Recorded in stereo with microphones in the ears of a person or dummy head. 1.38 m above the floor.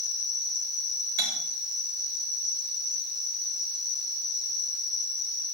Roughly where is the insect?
Centre.